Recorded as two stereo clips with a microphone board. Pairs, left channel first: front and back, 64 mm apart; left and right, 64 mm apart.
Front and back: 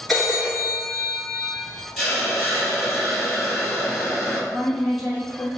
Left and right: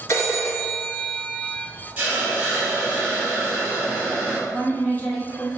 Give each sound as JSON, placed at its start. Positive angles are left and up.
{"t": 0.1, "sound": "a phone ringing", "azimuth_deg": 85, "distance_m": 0.9}
{"t": 2.0, "sound": "a hiss", "azimuth_deg": -90, "distance_m": 1.3}
{"t": 4.5, "sound": "a woman speaking", "azimuth_deg": 100, "distance_m": 1.1}